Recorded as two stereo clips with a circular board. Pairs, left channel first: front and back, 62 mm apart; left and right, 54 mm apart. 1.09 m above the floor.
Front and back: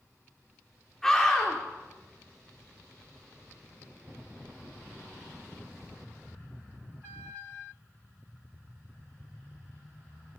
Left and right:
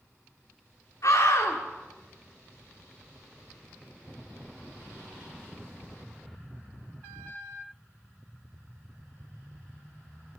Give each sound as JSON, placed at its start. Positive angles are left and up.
{"t": 1.0, "sound": "a scream", "azimuth_deg": 80, "distance_m": 2.5}